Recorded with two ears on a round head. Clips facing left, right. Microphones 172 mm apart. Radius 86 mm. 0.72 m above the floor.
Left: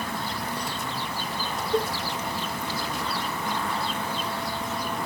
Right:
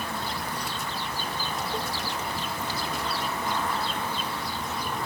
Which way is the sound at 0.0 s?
10° left (ahead or behind).